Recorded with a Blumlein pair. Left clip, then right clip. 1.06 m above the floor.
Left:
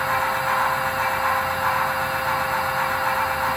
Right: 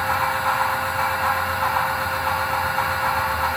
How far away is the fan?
About 1.3 m.